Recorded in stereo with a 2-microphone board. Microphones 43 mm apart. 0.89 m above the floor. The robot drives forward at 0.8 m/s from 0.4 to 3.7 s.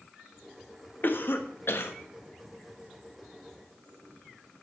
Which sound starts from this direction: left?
A cough, at 1.0 s.